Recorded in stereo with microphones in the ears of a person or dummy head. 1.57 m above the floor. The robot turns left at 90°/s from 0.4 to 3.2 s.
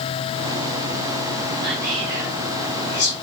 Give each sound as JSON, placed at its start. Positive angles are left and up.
{"t": 1.6, "sound": "whispering", "side_deg": -65, "distance_m": 2.0}